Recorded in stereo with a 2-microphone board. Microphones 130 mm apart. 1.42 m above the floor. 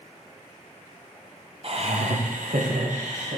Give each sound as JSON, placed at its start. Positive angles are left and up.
{"t": 1.6, "sound": "laughter", "side_deg": -45, "distance_m": 1.0}